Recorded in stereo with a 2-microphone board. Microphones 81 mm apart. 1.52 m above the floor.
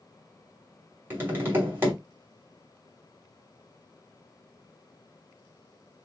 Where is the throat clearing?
I don't hear throat clearing.